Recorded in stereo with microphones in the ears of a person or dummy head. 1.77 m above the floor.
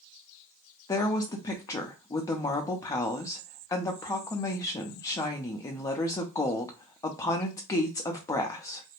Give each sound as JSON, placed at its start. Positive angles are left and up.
{"t": 0.9, "sound": "a woman speaking", "side_deg": 15, "distance_m": 0.5}